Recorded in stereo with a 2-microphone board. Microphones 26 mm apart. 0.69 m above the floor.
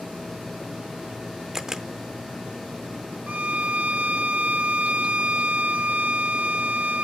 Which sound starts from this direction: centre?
A camera shutter, at 1.5 s.